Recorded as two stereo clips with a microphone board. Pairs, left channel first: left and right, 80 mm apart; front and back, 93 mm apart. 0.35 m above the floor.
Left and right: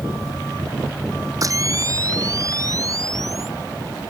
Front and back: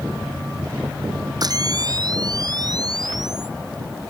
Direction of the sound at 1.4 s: 135° right.